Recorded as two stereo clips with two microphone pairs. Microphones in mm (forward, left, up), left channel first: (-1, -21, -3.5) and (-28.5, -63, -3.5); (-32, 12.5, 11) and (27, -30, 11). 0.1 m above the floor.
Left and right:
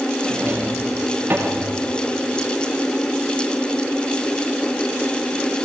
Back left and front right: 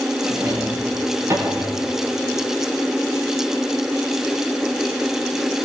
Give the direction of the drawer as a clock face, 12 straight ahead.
3 o'clock.